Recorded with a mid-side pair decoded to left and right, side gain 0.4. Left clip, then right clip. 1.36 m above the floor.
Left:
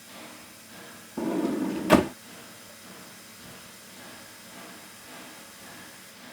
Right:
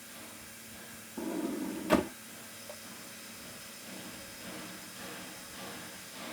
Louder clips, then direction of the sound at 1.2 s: Left 8 dB; 65° left.